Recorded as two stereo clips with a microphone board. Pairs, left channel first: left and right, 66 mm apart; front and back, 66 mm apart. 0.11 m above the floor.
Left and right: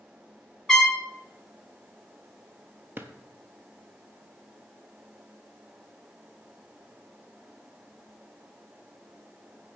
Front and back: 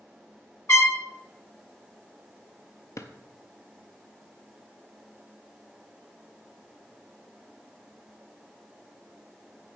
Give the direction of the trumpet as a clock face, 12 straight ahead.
12 o'clock.